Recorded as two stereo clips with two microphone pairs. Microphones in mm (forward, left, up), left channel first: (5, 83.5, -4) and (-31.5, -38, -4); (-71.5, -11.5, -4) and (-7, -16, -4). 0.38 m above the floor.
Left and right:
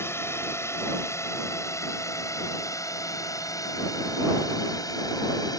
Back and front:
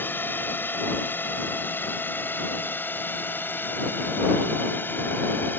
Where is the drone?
135° left; by 5.6 s 125° left.